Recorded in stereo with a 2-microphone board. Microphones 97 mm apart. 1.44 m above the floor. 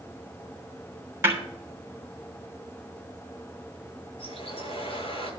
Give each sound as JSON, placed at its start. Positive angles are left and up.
{"t": 1.2, "sound": "a snare drum", "side_deg": -25, "distance_m": 3.0}
{"t": 4.2, "sound": "a bird", "side_deg": 70, "distance_m": 7.5}